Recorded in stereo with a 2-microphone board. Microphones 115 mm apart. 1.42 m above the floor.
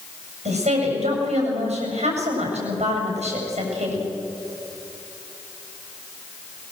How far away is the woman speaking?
About 7.5 m.